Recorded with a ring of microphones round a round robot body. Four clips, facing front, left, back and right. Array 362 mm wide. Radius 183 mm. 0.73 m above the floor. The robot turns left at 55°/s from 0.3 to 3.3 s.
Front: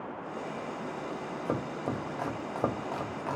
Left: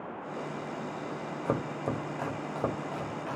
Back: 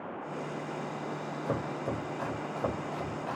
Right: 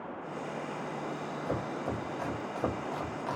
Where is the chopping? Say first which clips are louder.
Left 3 dB, even; 80° left, 0.9 m; by 3.4 s 20° right, 0.9 m.